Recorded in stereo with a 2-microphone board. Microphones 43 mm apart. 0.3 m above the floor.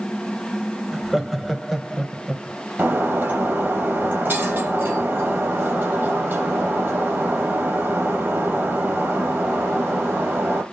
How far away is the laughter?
About 1.4 m.